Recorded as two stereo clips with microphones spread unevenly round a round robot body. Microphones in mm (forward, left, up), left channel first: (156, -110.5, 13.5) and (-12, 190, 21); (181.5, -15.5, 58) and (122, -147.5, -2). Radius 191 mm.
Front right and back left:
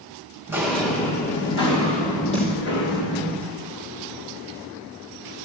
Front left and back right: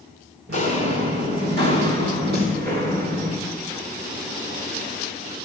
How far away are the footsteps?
About 1.8 m.